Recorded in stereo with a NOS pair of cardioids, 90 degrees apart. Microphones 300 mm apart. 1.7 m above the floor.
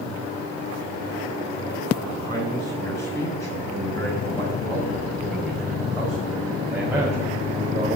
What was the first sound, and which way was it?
A man speaking, 15° left.